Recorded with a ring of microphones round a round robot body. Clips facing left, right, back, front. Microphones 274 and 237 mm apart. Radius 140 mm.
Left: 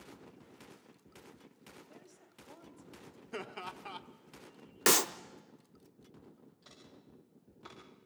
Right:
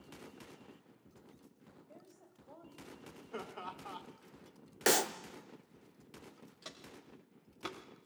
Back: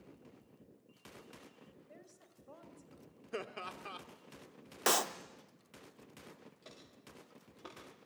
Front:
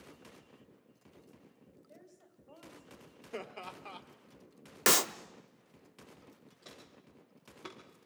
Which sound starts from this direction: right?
Footsteps, at 6.6 s.